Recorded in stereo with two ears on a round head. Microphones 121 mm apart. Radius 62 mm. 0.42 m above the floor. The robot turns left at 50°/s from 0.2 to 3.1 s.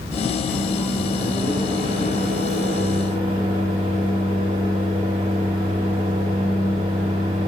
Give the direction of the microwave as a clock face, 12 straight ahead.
12 o'clock.